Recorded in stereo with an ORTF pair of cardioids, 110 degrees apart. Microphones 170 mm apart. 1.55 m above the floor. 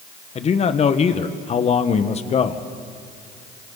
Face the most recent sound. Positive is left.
turn(degrees=40)